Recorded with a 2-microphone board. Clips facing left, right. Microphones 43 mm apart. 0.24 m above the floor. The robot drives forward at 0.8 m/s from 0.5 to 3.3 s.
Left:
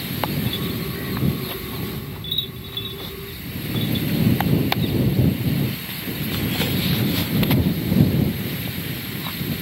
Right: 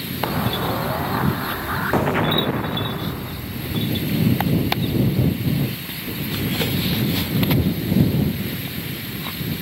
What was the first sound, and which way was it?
An explosion, 80° right.